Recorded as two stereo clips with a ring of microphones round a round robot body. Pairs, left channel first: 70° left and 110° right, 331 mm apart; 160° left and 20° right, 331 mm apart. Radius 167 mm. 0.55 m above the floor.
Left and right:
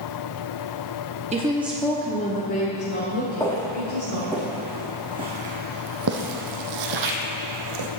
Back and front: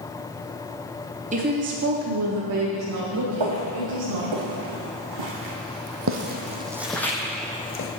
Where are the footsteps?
15° right, 3 m; by 7.9 s 140° right, 1.7 m.